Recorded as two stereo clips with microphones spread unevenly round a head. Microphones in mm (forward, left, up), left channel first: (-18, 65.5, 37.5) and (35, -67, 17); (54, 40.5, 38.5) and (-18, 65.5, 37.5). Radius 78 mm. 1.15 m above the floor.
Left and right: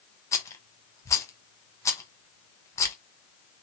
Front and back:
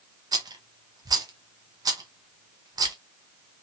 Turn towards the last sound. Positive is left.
turn(degrees=-175)